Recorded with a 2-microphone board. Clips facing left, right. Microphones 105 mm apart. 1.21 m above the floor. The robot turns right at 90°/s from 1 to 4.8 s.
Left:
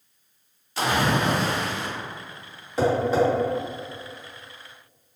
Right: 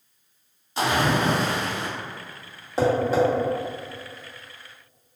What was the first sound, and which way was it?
A splash, 150° right.